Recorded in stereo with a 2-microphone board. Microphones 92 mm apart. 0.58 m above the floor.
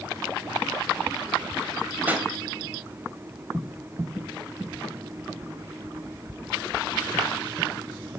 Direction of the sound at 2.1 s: 20° right (ahead or behind).